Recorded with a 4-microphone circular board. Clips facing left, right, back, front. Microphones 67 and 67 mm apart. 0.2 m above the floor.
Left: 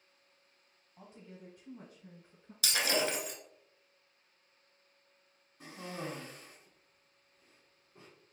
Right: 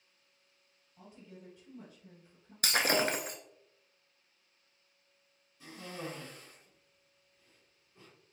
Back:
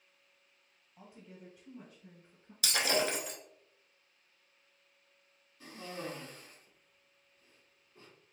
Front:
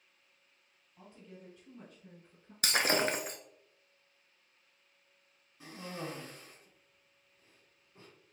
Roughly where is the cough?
Ahead left.